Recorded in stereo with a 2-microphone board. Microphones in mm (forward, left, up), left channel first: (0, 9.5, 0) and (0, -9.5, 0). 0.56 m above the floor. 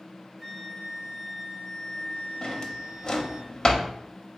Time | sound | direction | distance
0.4 | a flute | centre (ahead or behind) | 1.3 m
2.4 | a drawer | 35° left (ahead or behind) | 0.5 m